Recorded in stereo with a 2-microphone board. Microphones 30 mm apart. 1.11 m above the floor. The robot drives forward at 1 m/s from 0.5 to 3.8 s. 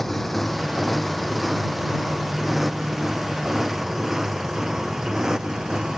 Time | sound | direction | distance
0.0 | a motorcycle | 5° left (ahead or behind) | ?